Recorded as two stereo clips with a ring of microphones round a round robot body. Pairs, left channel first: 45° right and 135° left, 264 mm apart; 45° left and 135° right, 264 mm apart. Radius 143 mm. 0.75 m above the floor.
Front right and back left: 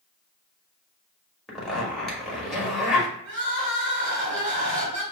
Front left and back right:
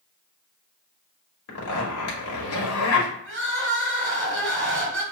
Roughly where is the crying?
Behind.